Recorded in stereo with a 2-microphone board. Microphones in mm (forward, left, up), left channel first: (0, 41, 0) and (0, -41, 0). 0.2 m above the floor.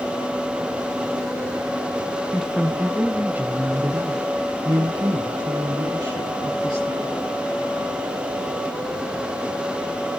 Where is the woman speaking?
Centre (ahead or behind), 1.4 m; by 7.2 s 65° right (ahead or behind), 3 m.